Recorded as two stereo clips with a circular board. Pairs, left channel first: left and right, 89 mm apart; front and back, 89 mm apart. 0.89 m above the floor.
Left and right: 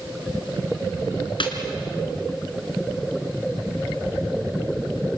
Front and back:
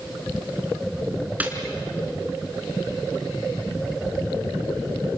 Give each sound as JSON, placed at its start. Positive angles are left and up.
{"t": 1.4, "sound": "a snare drum", "azimuth_deg": 110, "distance_m": 3.0}